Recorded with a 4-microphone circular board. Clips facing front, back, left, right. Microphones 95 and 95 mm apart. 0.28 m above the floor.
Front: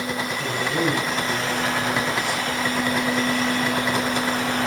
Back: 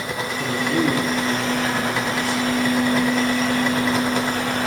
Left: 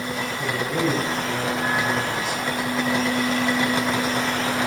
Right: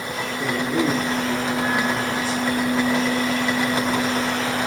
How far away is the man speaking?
About 3.5 m.